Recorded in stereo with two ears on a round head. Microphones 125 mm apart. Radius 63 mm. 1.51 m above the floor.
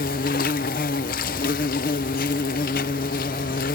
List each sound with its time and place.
0.0 s an insect: 65° left (ahead or behind)